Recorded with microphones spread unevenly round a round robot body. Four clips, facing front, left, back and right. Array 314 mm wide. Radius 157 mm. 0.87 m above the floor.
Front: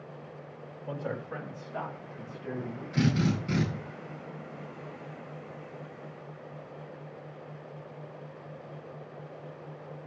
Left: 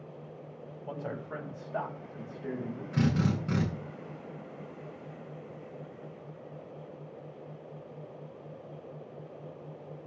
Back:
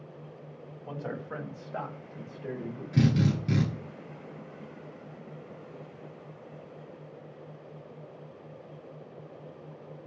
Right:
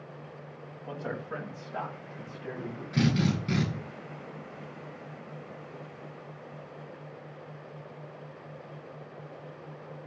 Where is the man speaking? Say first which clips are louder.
Right 2 dB, front 1 dB; 165° left, 6.5 m; by 2.8 s 170° left, 6 m.